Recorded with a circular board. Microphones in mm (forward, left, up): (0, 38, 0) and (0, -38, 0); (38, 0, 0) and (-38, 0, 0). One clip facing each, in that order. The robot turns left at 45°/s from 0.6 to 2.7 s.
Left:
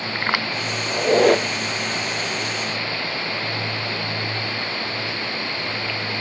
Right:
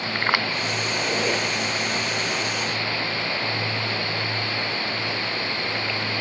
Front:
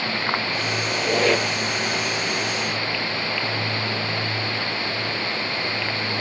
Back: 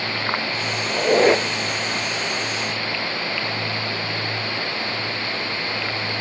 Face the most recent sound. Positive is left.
turn(degrees=55)